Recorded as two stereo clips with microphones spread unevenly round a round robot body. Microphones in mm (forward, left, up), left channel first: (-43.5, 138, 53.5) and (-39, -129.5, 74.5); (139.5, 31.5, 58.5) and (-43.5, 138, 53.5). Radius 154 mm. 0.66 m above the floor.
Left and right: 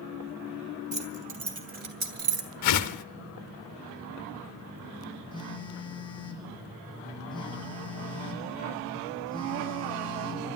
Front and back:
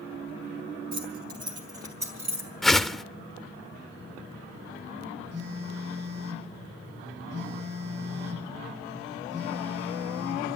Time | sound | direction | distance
0.9 | keys jangling | 155° right | 3 m
2.6 | a whoosh | 60° left | 0.5 m
5.3 | a phone buzzing | 165° left | 4 m